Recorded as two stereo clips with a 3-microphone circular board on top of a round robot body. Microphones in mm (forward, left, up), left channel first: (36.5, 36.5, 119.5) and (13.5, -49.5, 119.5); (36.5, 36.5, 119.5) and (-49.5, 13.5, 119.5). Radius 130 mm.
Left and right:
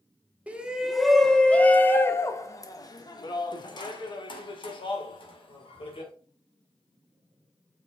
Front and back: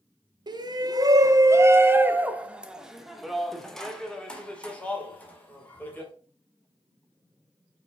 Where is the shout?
Straight behind, 1.4 m; by 6.1 s 85° left, 3 m.